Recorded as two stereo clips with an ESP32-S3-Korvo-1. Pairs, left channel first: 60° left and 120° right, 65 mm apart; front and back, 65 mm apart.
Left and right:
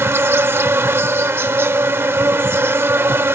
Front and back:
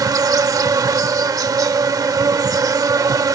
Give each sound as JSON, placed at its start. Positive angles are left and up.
{"t": 0.0, "sound": "an insect", "azimuth_deg": -170}